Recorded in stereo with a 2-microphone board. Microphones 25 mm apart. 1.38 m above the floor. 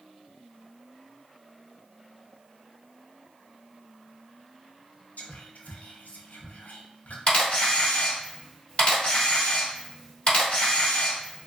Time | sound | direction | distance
5.2 | whispering | 80° left | 0.7 m
7.3 | a camera shutter | 50° left (ahead or behind) | 1.7 m